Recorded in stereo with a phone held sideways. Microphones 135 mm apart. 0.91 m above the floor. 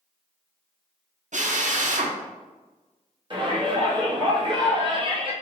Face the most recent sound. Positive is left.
turn(degrees=-35)  # may be behind; listen again after turning